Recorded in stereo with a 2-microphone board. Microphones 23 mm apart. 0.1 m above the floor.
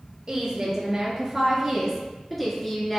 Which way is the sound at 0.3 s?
35° right (ahead or behind).